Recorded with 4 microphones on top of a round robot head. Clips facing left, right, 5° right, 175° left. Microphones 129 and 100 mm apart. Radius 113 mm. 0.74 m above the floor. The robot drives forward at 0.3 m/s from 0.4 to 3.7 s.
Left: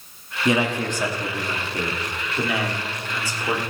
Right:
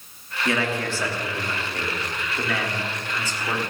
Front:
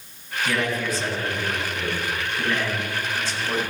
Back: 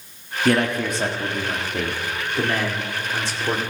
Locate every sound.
0.5 s a man speaking: 160° left, 1.3 m; by 3.6 s 170° left, 2 m